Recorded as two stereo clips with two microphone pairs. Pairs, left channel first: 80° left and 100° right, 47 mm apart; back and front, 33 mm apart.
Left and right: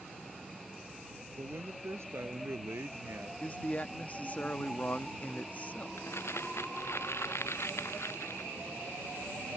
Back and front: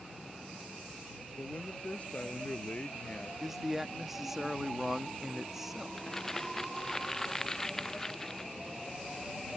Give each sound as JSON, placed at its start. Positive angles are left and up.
{"t": 1.4, "sound": "a man speaking", "azimuth_deg": -130}
{"t": 3.4, "sound": "a man speaking", "azimuth_deg": 80}
{"t": 6.0, "sound": "crumpling", "azimuth_deg": 105}